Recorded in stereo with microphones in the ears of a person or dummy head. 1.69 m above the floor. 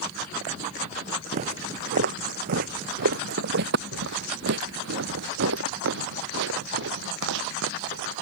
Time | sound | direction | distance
1.3 | footsteps | 45° right (ahead or behind) | ?